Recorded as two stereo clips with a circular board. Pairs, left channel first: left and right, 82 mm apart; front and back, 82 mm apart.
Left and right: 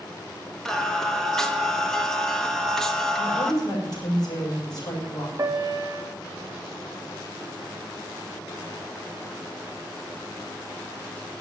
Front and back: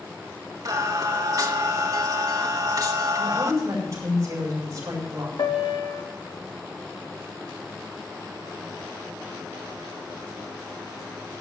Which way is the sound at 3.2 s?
130° left.